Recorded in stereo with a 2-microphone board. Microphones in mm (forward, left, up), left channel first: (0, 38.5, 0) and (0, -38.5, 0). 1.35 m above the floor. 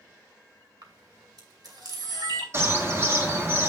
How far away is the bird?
About 1.5 m.